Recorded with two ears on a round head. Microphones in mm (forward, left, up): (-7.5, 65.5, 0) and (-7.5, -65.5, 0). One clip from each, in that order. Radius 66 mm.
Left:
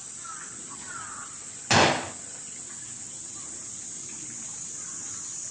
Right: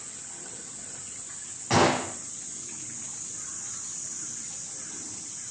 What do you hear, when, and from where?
1.7 s a gunshot: 55° left (ahead or behind), 1.4 m